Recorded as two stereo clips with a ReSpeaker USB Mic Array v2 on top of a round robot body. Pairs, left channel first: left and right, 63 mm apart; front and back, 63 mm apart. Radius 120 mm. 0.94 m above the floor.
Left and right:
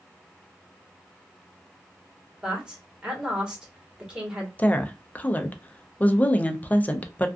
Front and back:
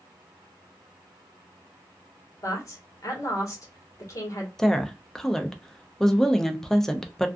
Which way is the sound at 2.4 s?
15° right.